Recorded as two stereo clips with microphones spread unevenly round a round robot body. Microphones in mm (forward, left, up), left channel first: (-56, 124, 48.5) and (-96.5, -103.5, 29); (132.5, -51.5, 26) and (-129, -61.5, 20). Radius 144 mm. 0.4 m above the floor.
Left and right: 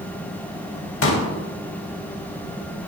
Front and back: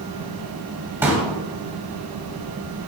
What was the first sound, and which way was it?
A pop, 100° left.